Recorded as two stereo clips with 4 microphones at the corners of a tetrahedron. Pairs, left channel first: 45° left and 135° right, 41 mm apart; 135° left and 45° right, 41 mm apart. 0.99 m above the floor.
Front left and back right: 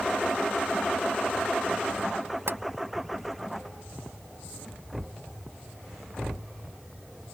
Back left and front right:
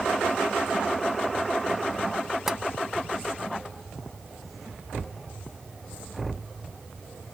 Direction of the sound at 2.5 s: 125° right.